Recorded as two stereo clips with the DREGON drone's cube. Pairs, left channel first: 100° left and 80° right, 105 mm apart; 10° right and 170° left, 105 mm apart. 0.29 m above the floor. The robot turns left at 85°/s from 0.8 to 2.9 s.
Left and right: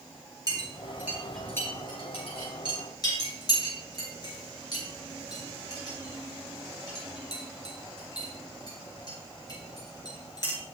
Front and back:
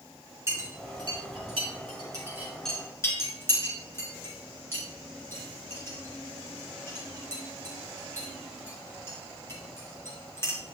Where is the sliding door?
I don't hear a sliding door.